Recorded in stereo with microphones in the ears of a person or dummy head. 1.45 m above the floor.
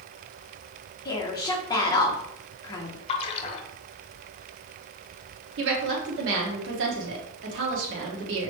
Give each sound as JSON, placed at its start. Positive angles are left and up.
{"t": 1.1, "sound": "a woman speaking", "side_deg": 25, "distance_m": 1.0}
{"t": 3.1, "sound": "a splash", "side_deg": 30, "distance_m": 0.7}
{"t": 5.6, "sound": "a woman speaking", "side_deg": -75, "distance_m": 1.3}